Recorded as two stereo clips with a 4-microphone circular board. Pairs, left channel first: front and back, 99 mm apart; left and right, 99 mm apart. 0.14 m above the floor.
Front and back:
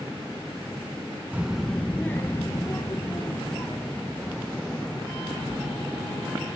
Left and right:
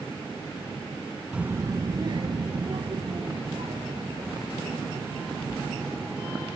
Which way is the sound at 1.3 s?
150° right.